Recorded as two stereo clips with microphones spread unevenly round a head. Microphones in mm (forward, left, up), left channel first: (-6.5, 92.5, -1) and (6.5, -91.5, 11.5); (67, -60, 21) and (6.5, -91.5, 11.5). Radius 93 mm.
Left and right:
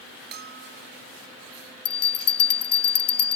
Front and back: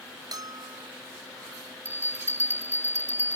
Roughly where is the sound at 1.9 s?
Behind left.